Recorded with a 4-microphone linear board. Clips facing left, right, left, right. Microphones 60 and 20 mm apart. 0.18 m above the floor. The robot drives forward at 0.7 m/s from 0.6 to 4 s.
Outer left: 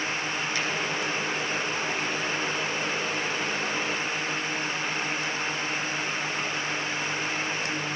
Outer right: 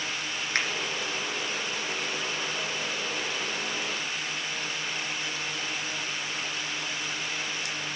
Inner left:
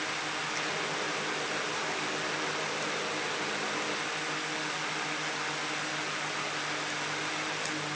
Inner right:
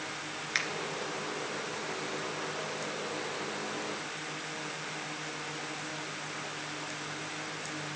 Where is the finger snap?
55° right (ahead or behind), 2.5 m.